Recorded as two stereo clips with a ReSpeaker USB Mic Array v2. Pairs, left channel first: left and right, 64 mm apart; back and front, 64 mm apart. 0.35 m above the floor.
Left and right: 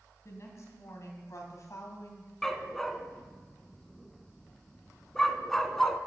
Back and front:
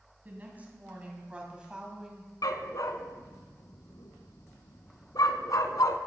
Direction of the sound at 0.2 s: 60° left.